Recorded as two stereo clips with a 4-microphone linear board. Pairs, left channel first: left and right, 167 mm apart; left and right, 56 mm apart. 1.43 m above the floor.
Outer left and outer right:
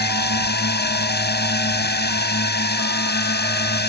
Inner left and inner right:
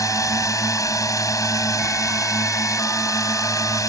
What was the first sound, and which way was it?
A drone, 90° left.